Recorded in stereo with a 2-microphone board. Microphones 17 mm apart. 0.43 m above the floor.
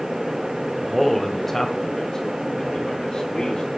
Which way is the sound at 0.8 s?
5° right (ahead or behind).